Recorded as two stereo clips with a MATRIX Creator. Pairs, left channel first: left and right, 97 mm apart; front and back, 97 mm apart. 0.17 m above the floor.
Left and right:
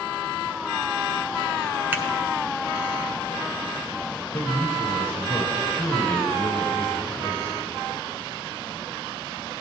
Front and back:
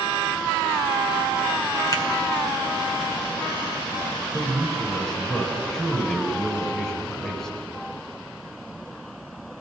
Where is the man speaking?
75° left, 1.2 m.